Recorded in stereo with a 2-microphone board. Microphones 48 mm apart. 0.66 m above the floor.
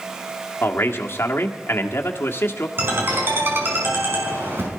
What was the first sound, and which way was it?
A man speaking, 50° left (ahead or behind).